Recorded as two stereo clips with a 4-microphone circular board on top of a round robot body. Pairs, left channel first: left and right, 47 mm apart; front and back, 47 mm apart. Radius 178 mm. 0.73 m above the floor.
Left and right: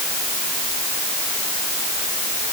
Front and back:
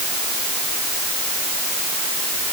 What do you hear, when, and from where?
Only background noise.